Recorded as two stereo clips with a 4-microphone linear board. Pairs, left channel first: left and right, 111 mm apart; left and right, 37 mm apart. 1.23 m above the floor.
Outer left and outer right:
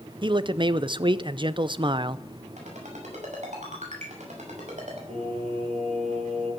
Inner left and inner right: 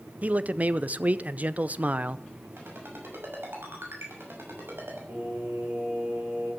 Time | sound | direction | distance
0.2 | a man speaking | 45° right (ahead or behind) | 0.6 m
2.6 | a ringtone | 80° right | 6 m
5.1 | singing | 80° right | 6.5 m